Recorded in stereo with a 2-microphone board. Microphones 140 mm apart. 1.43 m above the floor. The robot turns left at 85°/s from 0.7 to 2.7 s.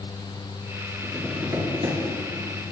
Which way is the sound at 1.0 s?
25° left.